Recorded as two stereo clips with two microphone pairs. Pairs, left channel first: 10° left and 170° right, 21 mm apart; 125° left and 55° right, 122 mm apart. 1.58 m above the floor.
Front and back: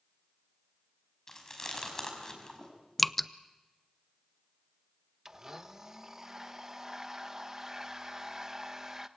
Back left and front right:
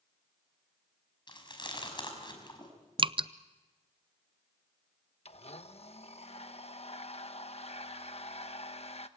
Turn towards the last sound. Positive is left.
turn(degrees=125)